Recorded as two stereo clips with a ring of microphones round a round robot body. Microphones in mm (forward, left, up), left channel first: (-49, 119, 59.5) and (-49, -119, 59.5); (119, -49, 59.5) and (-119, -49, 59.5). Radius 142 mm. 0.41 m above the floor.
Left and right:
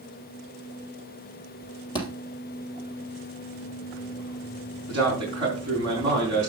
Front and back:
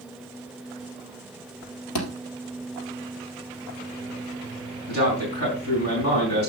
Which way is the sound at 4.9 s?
20° right.